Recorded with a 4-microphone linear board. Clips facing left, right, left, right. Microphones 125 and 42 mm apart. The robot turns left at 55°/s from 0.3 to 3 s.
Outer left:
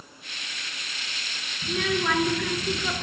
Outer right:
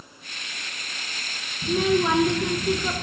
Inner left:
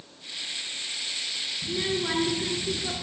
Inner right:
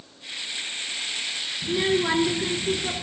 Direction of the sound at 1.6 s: 30° right (ahead or behind).